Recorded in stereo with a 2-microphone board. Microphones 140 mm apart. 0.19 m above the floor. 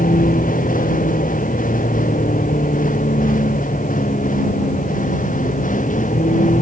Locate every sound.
0.0 s a vehicle: 80° left; by 6.6 s 70° left (ahead or behind)